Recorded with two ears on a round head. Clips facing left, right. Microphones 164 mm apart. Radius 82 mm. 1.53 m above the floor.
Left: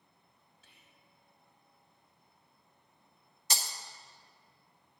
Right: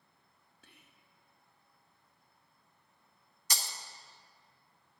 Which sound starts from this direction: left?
Breaking glass, at 3.5 s.